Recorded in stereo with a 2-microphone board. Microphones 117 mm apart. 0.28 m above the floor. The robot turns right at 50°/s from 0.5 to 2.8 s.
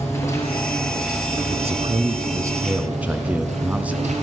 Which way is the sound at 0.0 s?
155° left.